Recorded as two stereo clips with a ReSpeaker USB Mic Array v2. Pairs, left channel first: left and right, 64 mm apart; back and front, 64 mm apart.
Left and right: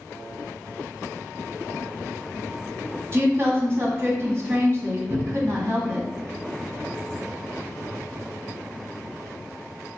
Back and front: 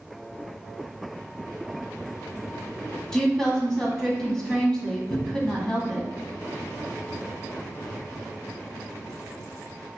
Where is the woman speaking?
105° right, 1.3 m.